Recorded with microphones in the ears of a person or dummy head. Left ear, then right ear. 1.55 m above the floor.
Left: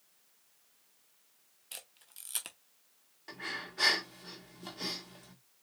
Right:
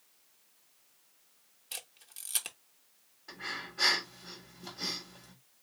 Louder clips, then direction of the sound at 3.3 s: Even; 50° left (ahead or behind).